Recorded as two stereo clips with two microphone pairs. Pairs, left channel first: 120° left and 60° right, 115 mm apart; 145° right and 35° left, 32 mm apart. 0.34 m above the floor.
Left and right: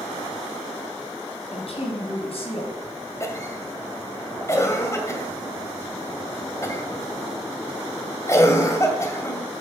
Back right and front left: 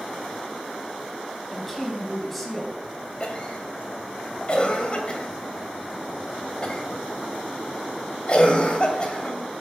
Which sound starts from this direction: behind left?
A woman speaking, at 1.5 s.